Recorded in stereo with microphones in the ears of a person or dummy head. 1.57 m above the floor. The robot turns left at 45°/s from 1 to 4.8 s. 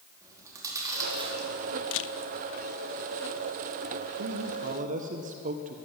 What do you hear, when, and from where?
0.2 s chewing: 15° right (ahead or behind), 4 m; by 1.5 s 40° right (ahead or behind), 4 m
1.9 s a camera shutter: 80° left, 0.8 m; by 2.1 s 70° left (ahead or behind), 0.8 m
4.2 s a man speaking: 65° right (ahead or behind), 1.3 m; by 5.8 s 40° right (ahead or behind), 1.3 m